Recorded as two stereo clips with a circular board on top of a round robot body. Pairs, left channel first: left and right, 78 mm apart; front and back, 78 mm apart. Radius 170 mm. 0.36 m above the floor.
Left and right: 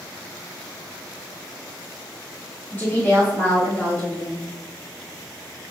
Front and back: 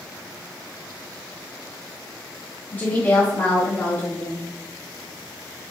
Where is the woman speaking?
50° left, 1.5 m.